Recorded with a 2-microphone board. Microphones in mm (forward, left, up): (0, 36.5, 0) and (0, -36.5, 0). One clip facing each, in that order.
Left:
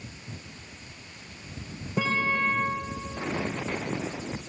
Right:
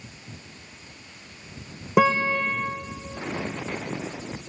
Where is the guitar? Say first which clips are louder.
Right 7 dB; 85° right, 5.5 m.